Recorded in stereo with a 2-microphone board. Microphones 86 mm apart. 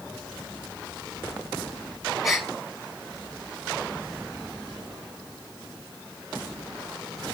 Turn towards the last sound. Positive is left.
turn(degrees=0)  # may be behind; listen again after turning